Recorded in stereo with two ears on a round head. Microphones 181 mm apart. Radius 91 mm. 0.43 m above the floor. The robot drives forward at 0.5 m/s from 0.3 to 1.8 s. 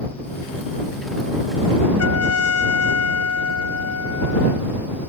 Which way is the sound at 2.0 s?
85° left.